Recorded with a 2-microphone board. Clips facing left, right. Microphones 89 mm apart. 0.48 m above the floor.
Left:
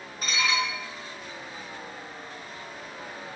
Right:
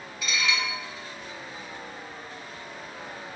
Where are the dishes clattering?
45° left (ahead or behind), 3 m.